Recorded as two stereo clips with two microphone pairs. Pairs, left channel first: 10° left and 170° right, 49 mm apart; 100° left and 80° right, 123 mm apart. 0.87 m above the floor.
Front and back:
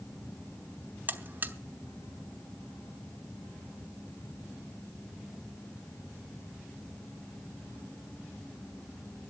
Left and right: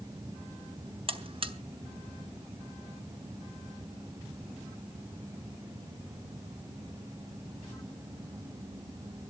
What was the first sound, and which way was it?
A buzzer, 120° right.